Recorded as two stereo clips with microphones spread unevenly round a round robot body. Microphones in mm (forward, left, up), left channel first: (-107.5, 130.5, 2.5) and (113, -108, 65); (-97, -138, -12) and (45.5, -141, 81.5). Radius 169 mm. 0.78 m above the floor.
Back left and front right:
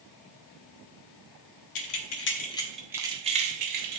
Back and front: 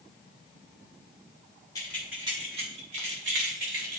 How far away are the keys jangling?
About 0.9 m.